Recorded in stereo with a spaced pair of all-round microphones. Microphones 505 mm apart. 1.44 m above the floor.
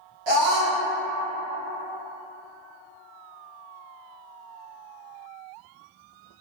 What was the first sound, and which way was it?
A scream, 60° right (ahead or behind).